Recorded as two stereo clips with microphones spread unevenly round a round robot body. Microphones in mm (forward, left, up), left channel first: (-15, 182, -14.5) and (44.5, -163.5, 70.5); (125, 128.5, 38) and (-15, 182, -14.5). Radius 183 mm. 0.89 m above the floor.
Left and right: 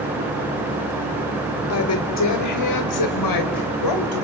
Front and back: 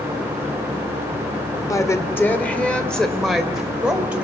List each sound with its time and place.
1.7 s a woman speaking: 55° left, 3.5 m; by 4.2 s 80° left, 5 m